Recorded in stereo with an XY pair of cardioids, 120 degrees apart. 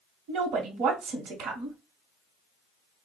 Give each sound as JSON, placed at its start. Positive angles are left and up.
{"t": 0.3, "sound": "a woman speaking", "azimuth_deg": -70, "distance_m": 1.1}